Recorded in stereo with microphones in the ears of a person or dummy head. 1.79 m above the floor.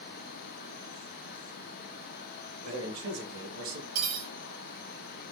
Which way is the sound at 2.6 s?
85° right.